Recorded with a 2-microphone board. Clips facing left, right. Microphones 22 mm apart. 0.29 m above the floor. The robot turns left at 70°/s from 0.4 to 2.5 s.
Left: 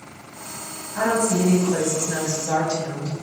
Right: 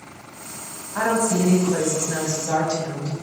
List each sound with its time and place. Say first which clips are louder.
0.9 s a woman speaking: even; 140° right, 1.5 m; by 3.1 s 115° left, 1.5 m